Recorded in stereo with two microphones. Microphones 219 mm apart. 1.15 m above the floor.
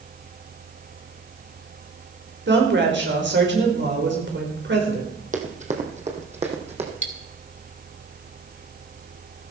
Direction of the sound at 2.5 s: 55° right (ahead or behind).